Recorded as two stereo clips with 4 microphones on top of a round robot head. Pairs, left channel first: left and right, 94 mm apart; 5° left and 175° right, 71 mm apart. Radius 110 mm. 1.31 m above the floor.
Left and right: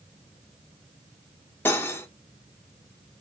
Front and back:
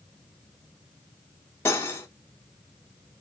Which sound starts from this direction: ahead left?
Cutlery clinking, at 1.6 s.